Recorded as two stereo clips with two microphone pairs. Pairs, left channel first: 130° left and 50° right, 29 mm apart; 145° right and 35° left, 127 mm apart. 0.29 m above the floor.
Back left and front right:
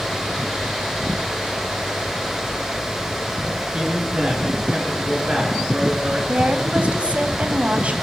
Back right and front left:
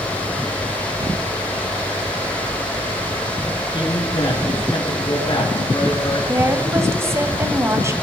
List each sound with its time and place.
3.7 s a man speaking: 95° right, 4.5 m
6.3 s a woman speaking: 25° right, 1.6 m